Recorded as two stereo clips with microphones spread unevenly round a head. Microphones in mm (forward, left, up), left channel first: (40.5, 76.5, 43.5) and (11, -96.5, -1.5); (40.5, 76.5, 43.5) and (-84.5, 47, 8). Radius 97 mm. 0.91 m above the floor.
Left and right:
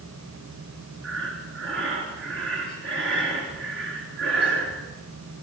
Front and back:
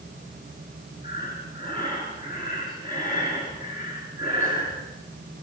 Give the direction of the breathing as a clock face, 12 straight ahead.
3 o'clock.